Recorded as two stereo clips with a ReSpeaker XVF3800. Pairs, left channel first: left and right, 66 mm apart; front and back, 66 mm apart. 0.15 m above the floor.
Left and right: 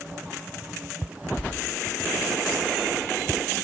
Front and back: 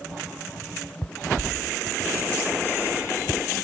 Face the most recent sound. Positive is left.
turn(degrees=-175)